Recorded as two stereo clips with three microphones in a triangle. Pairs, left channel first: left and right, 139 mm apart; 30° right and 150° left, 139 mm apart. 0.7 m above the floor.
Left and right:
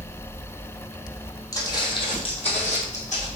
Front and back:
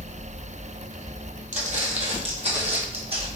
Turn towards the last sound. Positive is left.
turn(degrees=110)